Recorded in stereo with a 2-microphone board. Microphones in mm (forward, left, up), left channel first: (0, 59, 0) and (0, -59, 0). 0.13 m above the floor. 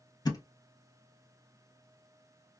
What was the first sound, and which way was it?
A thud, 35° left (ahead or behind).